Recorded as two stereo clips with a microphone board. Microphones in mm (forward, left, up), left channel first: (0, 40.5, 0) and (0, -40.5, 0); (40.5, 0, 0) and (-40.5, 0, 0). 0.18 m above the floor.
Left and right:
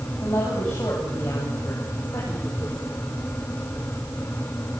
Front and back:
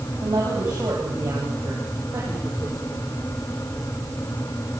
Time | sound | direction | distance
0.2 | a woman speaking | 130° left | 6.5 m